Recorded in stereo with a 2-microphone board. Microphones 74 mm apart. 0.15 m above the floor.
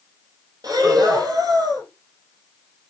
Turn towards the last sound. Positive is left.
turn(degrees=-55)  # may be behind; listen again after turning